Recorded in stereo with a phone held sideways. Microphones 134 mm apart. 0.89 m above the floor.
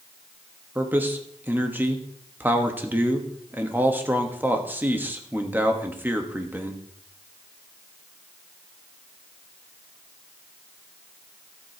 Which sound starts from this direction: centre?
A man speaking, at 0.8 s.